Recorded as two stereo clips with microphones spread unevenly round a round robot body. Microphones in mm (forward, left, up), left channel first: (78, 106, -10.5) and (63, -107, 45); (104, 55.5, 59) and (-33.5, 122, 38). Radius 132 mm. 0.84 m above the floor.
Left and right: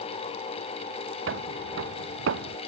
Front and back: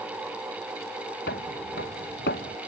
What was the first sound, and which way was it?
Footsteps, 70° right.